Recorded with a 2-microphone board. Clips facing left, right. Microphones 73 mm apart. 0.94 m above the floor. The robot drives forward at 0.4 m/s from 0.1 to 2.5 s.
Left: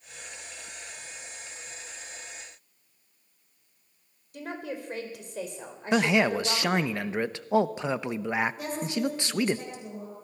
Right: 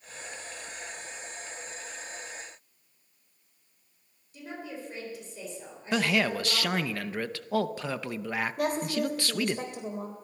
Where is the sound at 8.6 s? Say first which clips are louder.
Right 2 dB; 65° right (ahead or behind), 3.5 m.